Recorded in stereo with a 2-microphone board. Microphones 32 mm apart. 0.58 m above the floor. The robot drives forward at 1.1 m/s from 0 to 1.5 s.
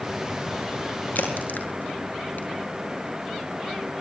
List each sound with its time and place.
1.1 s a crack: 75° left (ahead or behind), 6 m; by 2.5 s 70° left (ahead or behind), 6.5 m